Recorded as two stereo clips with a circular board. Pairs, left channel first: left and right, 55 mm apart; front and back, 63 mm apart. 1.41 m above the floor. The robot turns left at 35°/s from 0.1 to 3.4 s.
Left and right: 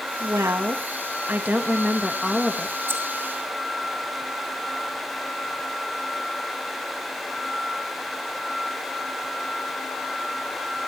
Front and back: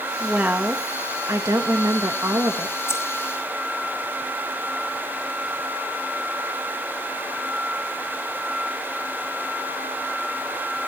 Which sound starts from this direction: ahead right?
Keys jangling, at 2.9 s.